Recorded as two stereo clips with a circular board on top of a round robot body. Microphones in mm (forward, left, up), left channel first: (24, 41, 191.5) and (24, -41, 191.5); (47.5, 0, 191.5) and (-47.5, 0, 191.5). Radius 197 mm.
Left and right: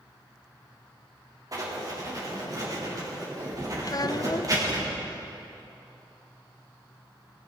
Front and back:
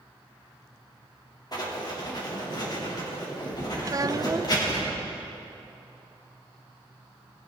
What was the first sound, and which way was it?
Writing, 45° right.